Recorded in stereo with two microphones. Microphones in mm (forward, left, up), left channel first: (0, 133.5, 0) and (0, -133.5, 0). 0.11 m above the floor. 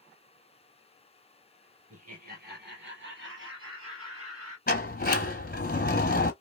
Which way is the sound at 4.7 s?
35° left (ahead or behind).